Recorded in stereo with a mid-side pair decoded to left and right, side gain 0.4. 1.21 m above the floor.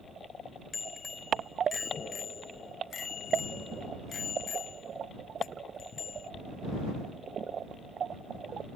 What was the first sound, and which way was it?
A bicycle bell, 35° left.